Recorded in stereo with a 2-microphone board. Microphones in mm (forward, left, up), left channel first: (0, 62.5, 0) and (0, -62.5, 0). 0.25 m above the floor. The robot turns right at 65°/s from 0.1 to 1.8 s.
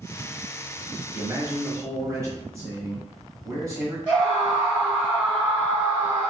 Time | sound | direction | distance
1.1 | a man speaking | 25° right (ahead or behind) | 1.1 m
4.1 | a scream | 10° right (ahead or behind) | 1.1 m